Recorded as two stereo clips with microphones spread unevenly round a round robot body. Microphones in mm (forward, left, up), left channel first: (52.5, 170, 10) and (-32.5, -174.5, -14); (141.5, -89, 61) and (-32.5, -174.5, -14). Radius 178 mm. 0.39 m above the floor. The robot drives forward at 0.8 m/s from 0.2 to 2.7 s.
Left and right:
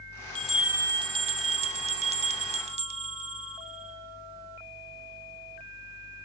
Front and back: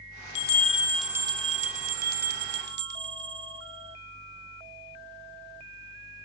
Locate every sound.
0.3 s a bell: 15° right, 0.6 m; by 4.0 s 175° right, 1.6 m